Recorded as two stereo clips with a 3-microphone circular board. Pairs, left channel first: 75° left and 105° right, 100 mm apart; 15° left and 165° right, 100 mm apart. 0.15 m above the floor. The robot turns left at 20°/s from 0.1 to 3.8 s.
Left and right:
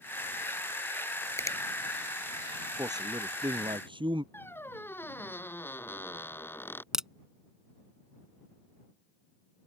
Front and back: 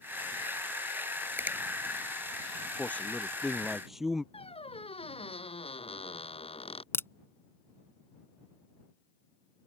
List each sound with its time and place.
1.4 s a finger snap: 130° left; by 1.6 s 125° left
2.8 s a man speaking: 60° right; by 4.2 s 80° right
4.3 s a squeak: 5° left
6.9 s a crack: 25° right